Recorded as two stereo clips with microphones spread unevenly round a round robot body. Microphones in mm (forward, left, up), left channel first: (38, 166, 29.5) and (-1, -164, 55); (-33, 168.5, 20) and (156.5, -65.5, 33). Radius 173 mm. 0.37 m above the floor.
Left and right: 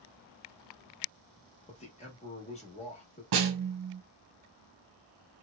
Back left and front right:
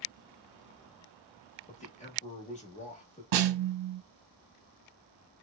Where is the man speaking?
110° left, 0.9 m.